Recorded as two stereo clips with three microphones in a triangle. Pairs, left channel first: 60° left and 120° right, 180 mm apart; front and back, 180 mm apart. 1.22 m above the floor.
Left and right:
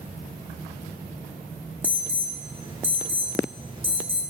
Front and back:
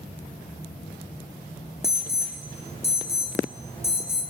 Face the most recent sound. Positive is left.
turn(degrees=-55)